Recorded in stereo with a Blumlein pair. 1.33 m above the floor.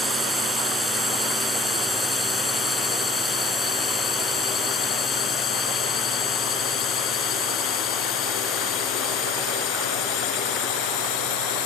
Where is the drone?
5° right; by 11.7 s 45° left.